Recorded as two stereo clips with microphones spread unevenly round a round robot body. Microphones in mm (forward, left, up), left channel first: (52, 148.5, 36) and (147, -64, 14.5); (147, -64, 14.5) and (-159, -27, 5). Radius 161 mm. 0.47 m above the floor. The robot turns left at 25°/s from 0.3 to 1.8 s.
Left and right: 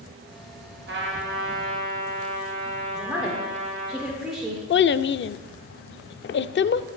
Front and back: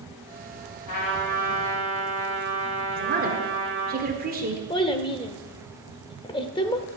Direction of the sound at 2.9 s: 145° right.